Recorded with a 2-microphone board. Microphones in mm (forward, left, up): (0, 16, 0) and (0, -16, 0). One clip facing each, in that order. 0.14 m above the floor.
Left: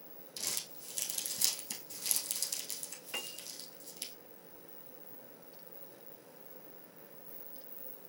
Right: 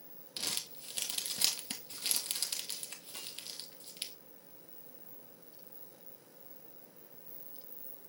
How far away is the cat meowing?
I don't hear a cat meowing.